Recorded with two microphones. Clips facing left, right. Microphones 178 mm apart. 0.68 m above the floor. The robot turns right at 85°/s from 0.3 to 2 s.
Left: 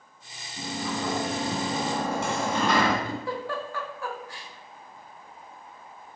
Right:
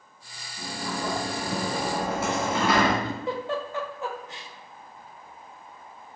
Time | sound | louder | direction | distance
0.6 | a sliding door | left 1 dB | 65° left | 3 m
3.0 | a giggle | right 2 dB | 20° right (ahead or behind) | 1.2 m